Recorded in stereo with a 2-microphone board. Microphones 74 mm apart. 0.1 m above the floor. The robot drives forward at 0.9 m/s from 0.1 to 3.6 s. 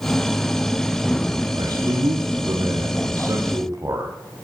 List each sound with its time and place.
1.6 s a man speaking: 65° right (ahead or behind), 3 m; by 4.1 s 45° right (ahead or behind), 4 m